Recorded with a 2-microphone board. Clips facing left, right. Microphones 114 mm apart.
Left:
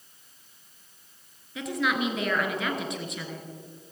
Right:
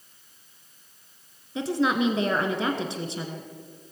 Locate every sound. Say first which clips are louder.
1.6 s a woman speaking: right 4 dB; 30° right (ahead or behind), 1.7 m